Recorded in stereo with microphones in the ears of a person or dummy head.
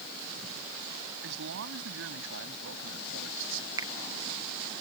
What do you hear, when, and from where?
1.2 s a man speaking: 70° right (ahead or behind); by 3.7 s 75° right (ahead or behind)
3.8 s a finger snap: 20° right (ahead or behind)